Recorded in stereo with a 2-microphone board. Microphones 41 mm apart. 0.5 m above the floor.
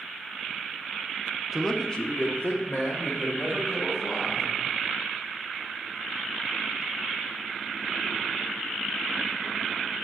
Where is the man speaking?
10° right (ahead or behind), 0.8 m; by 4.6 s 65° left (ahead or behind), 3.5 m.